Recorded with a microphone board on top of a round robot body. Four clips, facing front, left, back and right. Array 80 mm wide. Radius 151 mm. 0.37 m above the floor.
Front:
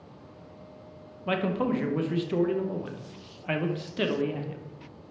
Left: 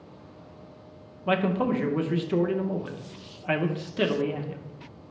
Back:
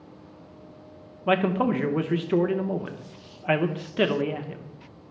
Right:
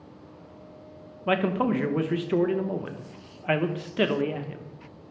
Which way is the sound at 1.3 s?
150° right.